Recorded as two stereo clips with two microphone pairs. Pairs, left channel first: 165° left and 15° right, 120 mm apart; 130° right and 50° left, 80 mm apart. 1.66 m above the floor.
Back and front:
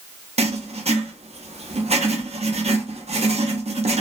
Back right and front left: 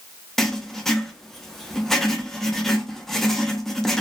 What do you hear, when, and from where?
0.4 s writing: 45° right, 0.6 m